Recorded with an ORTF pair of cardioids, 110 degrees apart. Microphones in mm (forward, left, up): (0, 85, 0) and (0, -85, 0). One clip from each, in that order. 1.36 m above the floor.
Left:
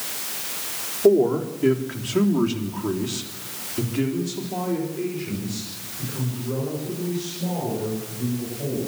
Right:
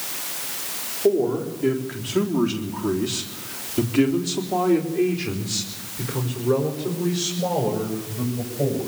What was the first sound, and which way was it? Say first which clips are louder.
A man speaking: left 3 dB; 25° left.